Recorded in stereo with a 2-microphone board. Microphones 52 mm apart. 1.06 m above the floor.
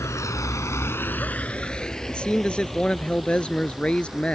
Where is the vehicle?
70° left (ahead or behind); by 4.3 s 5° right (ahead or behind).